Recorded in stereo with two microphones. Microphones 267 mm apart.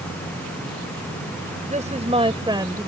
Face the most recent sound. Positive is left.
turn(degrees=-10)  # may be behind; listen again after turning